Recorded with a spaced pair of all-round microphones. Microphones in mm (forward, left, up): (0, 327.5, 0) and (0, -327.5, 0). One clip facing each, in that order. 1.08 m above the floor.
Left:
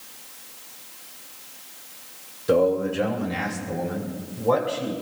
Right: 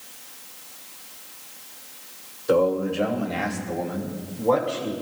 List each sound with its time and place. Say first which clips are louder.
2.5 s a man speaking: left 1 dB; 45° left (ahead or behind), 1.8 m